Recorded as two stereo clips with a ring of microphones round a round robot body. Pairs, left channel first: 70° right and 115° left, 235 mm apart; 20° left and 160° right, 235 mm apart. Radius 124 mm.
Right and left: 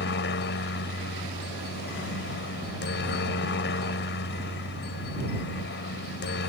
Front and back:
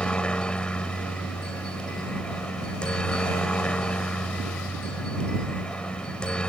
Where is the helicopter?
60° right.